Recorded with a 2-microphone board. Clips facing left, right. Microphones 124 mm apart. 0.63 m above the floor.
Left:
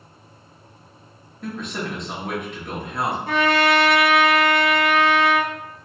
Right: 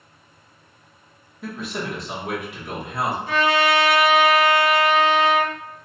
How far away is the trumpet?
About 0.8 m.